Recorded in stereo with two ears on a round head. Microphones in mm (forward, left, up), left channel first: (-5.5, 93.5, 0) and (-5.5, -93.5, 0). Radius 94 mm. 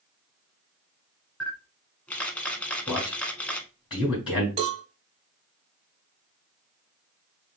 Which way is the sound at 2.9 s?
20° left (ahead or behind).